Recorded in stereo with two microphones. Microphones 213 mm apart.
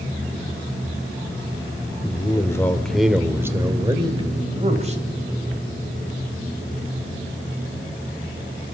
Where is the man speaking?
25° left (ahead or behind), 1.6 m; by 5.0 s 35° right (ahead or behind), 3 m.